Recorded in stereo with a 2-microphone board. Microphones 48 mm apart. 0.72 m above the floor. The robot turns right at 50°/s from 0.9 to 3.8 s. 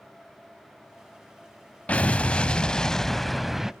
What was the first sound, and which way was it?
An explosion, 100° left.